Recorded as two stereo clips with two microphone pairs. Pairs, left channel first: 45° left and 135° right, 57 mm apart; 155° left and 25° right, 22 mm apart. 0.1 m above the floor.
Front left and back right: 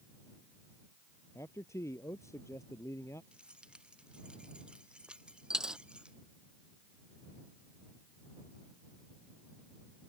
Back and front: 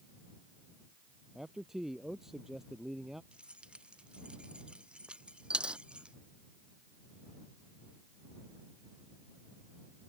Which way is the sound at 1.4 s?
45° left.